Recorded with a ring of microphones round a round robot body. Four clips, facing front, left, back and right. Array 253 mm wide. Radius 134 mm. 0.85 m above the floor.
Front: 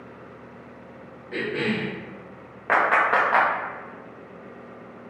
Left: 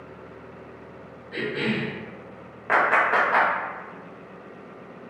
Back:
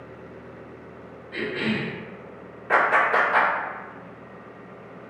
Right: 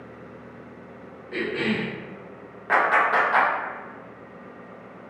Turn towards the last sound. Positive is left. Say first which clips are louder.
# even, even
turn(degrees=15)